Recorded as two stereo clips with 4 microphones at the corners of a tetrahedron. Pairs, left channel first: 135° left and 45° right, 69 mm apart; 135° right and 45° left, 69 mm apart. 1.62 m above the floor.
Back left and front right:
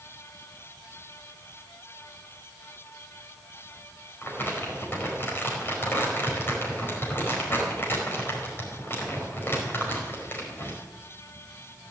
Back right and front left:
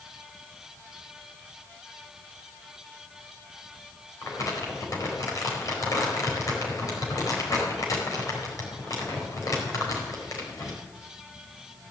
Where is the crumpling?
170° right, 4.5 m.